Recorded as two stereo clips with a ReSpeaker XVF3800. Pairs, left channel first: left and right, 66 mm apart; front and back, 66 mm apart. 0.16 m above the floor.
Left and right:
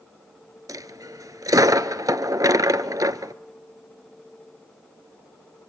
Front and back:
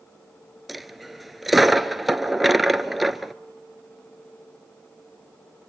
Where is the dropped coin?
90° right, 0.8 m.